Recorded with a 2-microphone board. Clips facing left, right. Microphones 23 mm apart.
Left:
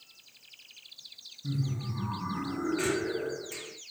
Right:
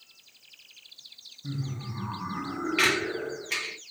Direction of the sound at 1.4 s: 15° right (ahead or behind).